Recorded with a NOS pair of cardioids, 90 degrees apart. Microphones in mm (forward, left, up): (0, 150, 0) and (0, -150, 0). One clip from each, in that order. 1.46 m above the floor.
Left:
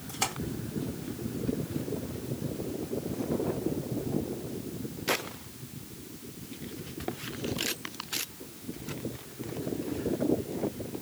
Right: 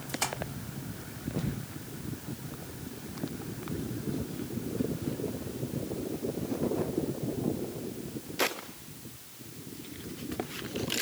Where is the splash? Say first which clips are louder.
Left 1 dB; 10° left, 2.5 m.